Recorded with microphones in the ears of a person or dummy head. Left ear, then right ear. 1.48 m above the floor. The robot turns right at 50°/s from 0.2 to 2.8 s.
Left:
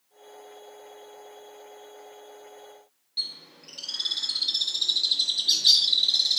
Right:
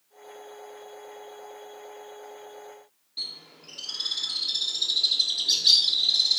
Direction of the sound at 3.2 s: 15° left (ahead or behind).